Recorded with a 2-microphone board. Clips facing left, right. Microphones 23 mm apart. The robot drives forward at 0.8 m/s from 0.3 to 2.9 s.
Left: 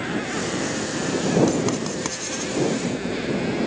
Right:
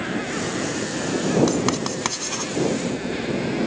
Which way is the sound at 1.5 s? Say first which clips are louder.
Right 1 dB; 35° right (ahead or behind).